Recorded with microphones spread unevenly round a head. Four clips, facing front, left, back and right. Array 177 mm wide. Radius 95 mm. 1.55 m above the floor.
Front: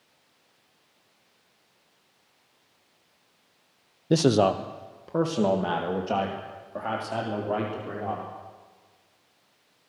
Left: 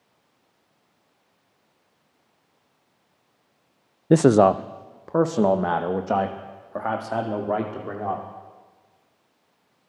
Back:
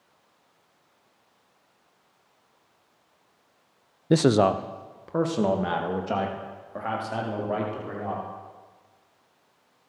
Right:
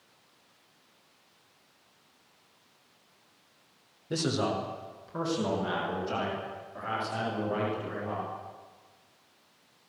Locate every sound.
4.1 s a man speaking: 90° left, 0.6 m; by 8.2 s 85° left, 5.5 m